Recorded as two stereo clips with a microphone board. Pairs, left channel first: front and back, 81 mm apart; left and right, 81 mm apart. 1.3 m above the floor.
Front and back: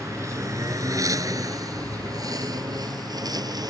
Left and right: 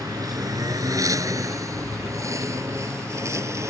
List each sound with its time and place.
0.0 s a lawn mower: 130° right; by 3.7 s 145° right